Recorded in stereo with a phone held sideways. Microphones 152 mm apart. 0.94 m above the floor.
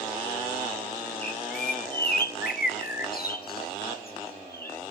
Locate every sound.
1.2 s a bird: 80° left, 1.2 m